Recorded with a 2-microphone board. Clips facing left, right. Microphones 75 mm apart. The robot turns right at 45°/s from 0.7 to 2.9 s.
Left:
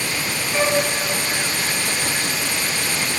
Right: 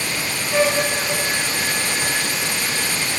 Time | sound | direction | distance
0.5 | a flute | 55° right (ahead or behind) | 7.5 m